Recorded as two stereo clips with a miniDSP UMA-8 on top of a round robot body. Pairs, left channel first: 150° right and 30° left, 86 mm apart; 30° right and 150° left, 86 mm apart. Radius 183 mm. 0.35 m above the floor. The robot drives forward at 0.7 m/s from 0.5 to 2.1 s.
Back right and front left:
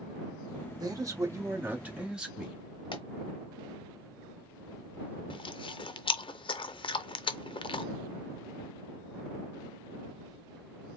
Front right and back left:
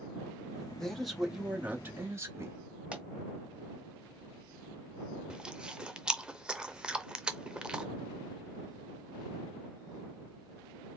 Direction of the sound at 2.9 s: 135° right.